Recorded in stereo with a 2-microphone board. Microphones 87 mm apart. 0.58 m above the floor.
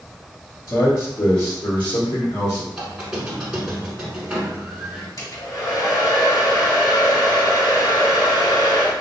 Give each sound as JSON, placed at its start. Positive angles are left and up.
{"t": 0.7, "sound": "a man speaking", "side_deg": 55, "distance_m": 1.7}
{"t": 2.7, "sound": "a squeak", "side_deg": -10, "distance_m": 1.1}
{"t": 5.2, "sound": "a hair dryer", "side_deg": 55, "distance_m": 2.0}